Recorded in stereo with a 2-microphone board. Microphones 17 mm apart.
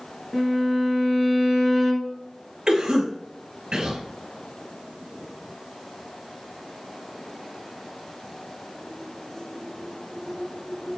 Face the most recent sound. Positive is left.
turn(degrees=-50)  # may be behind; listen again after turning